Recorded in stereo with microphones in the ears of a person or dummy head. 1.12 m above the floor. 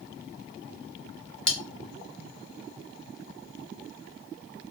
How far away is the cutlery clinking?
About 0.5 m.